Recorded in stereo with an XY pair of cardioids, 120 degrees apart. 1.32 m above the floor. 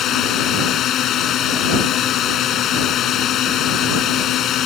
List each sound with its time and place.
0.0 s a drone: 60° left